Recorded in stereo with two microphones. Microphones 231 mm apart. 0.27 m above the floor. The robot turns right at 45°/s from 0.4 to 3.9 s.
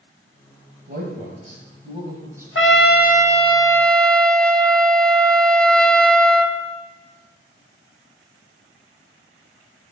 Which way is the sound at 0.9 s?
40° right (ahead or behind).